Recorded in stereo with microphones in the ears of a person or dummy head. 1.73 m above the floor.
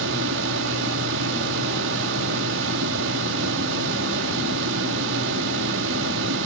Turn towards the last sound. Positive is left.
turn(degrees=-70)  # may be behind; listen again after turning